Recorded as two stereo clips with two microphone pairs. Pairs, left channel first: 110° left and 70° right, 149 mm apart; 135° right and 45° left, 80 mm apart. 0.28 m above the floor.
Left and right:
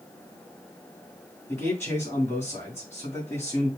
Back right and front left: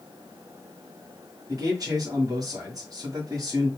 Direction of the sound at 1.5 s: 40° left.